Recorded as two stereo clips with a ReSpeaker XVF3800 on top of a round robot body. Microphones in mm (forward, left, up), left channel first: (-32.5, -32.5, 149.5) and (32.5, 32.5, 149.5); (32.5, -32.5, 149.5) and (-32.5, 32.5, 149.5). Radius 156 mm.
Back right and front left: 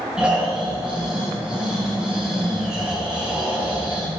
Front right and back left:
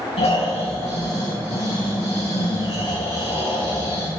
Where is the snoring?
35° right, 4 m.